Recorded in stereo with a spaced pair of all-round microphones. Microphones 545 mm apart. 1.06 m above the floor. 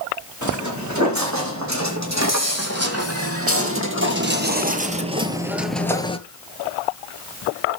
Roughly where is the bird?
I don't hear a bird.